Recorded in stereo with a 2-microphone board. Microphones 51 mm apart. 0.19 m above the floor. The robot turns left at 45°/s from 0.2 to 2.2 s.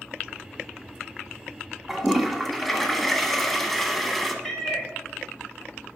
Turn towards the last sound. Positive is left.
turn(degrees=5)  # may be behind; listen again after turning